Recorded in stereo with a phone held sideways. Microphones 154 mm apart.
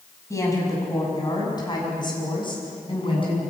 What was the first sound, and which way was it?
A woman speaking, 20° left (ahead or behind).